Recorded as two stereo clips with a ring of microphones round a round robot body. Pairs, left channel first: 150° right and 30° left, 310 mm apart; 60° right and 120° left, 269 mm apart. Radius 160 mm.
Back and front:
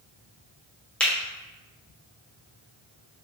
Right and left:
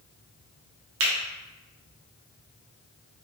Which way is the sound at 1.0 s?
125° left.